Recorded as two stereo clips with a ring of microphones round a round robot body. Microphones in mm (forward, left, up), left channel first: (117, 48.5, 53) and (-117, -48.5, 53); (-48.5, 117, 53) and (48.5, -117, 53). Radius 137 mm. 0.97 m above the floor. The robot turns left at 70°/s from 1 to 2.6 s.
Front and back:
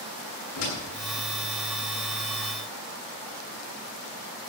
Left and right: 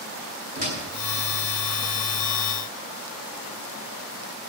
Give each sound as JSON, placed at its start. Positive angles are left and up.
{"t": 0.6, "sound": "a door slam", "azimuth_deg": -10, "distance_m": 10.0}